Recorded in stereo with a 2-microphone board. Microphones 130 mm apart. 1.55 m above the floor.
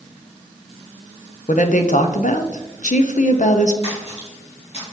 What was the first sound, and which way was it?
A woman speaking, 80° left.